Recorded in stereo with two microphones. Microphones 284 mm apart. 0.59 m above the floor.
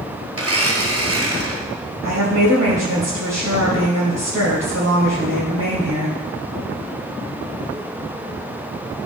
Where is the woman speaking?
65° right (ahead or behind), 2.5 m.